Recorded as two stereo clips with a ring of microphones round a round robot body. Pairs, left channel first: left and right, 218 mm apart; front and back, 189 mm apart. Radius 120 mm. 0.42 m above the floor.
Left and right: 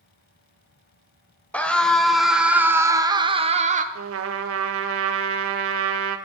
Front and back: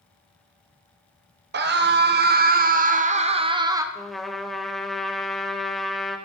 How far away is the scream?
About 1.6 m.